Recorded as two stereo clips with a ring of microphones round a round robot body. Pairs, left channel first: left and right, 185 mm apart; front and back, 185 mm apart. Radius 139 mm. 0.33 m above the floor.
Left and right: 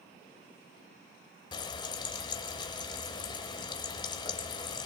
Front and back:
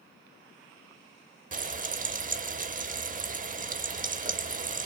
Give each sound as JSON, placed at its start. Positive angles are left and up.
{"t": 1.5, "sound": "frying", "azimuth_deg": 150, "distance_m": 0.8}